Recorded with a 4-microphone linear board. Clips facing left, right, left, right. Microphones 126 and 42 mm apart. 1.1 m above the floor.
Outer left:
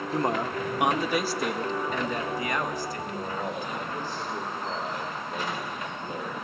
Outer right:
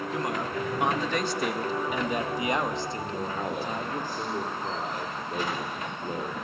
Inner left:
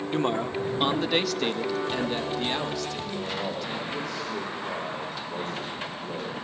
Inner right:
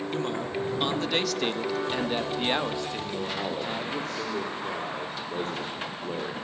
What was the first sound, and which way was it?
A man speaking, 35° left (ahead or behind).